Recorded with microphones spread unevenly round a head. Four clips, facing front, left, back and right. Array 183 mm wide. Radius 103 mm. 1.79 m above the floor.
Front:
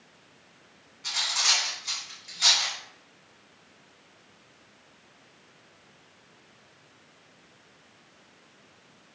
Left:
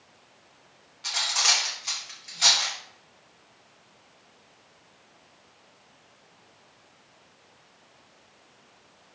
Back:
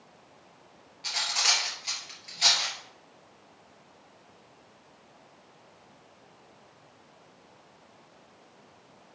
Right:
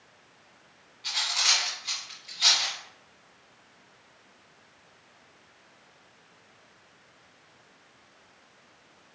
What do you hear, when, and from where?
1.0 s cutlery clinking: 130° left, 1.7 m